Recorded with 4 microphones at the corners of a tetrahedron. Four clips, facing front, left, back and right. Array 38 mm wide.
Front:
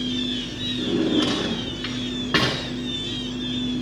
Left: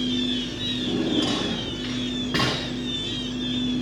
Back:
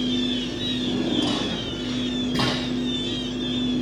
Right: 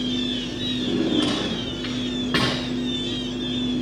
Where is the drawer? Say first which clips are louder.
Right 2 dB, front 4 dB; 15° right, 8.5 m.